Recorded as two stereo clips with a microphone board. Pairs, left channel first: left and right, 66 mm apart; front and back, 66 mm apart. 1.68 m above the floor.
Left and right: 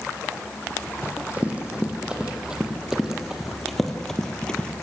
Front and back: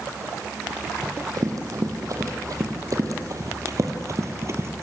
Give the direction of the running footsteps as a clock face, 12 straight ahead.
5 o'clock.